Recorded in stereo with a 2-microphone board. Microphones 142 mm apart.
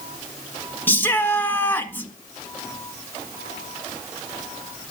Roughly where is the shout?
Centre.